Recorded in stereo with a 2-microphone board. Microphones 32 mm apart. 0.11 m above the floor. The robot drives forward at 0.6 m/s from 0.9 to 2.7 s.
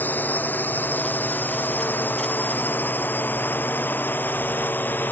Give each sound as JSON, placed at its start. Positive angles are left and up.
{"t": 0.0, "sound": "a drone", "side_deg": 65}